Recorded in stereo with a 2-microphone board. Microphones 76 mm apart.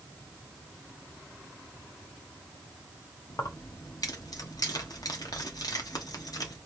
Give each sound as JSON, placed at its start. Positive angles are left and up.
{"t": 3.3, "sound": "keys jangling", "side_deg": 65, "distance_m": 1.2}